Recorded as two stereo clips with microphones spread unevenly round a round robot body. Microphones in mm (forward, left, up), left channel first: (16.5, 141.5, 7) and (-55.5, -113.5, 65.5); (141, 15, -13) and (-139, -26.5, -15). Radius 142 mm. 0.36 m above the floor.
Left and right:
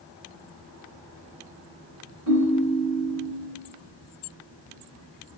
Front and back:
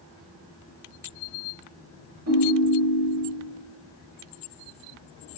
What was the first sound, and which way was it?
A ringtone, 135° right.